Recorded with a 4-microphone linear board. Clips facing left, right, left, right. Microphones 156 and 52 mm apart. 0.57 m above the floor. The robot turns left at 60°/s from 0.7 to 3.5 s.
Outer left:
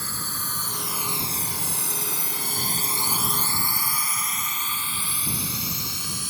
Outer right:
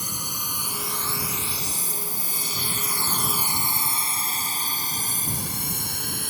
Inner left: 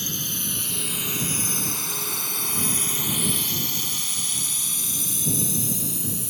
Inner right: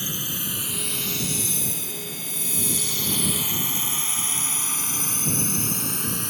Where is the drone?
15° right (ahead or behind); by 6.3 s 55° right (ahead or behind).